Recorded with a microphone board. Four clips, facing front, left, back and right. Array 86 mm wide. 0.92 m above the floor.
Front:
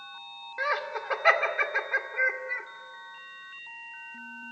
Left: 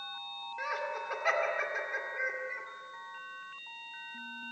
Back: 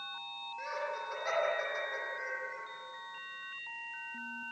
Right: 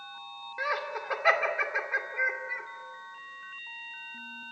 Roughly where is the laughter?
Ahead right.